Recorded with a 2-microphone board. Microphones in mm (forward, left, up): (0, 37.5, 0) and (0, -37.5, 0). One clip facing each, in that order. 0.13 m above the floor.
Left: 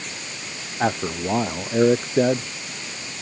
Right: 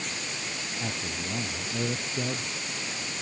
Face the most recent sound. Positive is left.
turn(degrees=75)  # may be behind; listen again after turning